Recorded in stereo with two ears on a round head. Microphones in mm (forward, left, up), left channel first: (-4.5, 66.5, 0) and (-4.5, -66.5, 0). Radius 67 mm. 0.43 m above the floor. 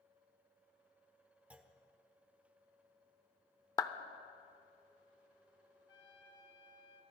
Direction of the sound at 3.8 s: 20° left (ahead or behind).